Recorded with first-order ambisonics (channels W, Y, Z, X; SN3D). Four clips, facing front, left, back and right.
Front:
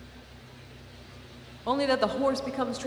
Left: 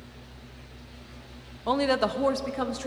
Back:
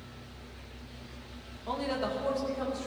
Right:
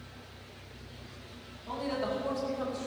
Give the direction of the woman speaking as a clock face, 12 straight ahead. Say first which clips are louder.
Left 9 dB, front 7 dB; 10 o'clock.